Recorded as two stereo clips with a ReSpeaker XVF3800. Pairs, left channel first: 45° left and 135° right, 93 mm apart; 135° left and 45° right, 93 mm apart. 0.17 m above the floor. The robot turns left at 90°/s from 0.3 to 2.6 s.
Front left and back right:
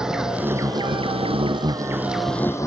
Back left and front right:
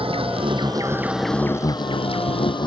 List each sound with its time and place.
0.0 s an insect: 50° right; by 2.7 s 100° left